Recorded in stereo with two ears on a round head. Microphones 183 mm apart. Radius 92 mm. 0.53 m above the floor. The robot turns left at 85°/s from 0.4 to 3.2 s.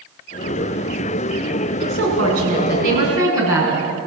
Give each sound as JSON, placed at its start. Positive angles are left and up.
{"t": 1.8, "sound": "a woman speaking", "azimuth_deg": -45, "distance_m": 7.0}